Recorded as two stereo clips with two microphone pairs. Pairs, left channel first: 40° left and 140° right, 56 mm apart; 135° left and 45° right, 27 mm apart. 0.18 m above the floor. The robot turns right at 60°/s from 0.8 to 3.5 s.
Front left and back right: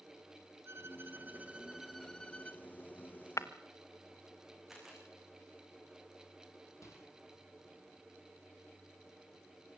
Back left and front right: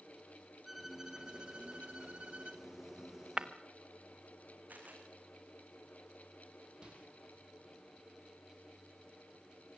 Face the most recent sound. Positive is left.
turn(degrees=10)